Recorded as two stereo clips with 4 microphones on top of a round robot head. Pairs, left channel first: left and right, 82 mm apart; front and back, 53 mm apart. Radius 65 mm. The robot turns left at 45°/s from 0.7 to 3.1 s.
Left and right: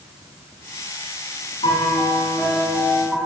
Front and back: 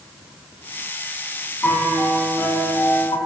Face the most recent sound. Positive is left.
turn(degrees=-5)